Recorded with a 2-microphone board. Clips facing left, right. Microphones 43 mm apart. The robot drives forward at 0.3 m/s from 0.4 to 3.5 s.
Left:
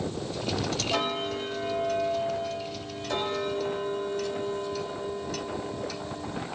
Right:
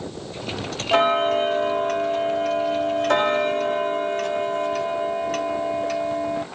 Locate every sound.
0.9 s ticking: 40° right (ahead or behind), 0.7 m; by 6.5 s 55° right (ahead or behind), 0.6 m